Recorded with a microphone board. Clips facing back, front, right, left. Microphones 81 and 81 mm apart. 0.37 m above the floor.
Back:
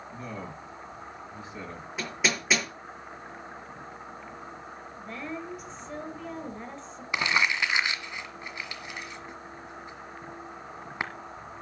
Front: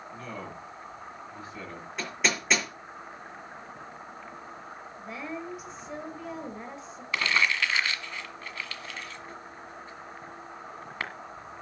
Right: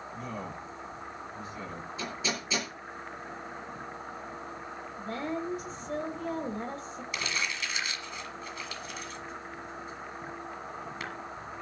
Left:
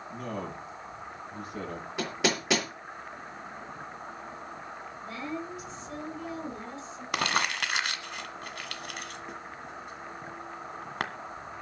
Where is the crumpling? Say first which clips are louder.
Even, left 7 dB; 110° left, 1.5 m.